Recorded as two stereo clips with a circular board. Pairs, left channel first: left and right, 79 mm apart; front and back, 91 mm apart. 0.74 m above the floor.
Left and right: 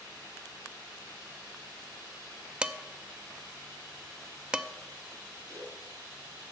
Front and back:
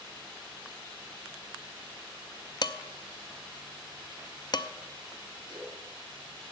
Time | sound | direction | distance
2.6 | dishes clattering | 15° right | 0.5 m
5.5 | a splash | 135° right | 6 m